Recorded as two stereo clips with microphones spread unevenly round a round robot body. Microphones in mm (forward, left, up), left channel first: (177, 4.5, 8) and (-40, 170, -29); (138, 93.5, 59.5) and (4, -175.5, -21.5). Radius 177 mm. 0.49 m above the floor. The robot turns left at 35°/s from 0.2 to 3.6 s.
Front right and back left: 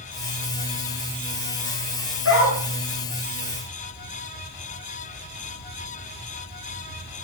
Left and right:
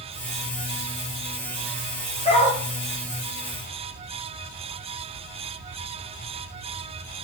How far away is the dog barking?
About 7 m.